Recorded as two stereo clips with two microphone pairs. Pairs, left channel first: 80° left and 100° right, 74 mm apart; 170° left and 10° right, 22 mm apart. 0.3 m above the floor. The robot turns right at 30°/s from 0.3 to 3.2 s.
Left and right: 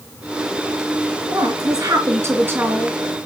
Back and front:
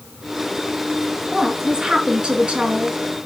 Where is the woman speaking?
80° right, 3.5 m; by 3.3 s 20° right, 3.5 m.